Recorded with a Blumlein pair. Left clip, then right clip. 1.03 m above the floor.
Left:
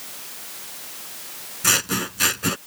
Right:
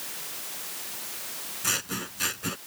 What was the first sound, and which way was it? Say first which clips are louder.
Scissors: left 9 dB; 25° left.